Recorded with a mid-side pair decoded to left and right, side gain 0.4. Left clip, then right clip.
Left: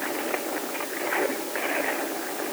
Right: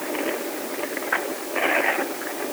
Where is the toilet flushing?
I don't hear a toilet flushing.